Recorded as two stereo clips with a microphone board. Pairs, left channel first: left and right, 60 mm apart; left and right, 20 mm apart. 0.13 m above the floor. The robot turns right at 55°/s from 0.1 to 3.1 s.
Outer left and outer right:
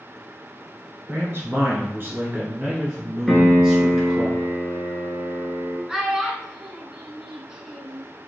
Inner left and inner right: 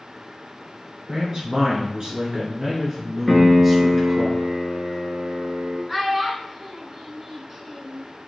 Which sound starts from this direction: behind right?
A man speaking, at 1.1 s.